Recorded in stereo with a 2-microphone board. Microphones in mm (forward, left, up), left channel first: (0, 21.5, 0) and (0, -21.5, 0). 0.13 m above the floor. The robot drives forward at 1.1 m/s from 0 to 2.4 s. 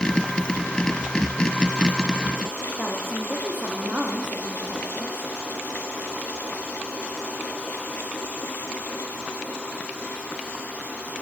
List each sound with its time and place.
2.8 s a woman speaking: 50° right (ahead or behind), 7.5 m